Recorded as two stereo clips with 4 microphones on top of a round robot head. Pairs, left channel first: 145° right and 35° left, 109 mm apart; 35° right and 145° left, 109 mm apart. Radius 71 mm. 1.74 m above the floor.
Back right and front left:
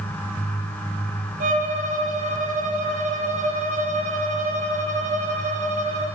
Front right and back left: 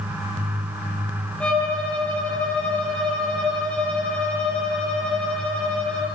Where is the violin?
45° left, 8.5 m.